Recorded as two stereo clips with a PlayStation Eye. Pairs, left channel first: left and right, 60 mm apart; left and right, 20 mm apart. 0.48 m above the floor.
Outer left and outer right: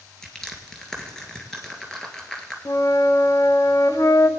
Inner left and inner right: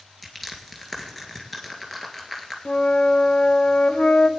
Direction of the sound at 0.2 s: 10° left (ahead or behind).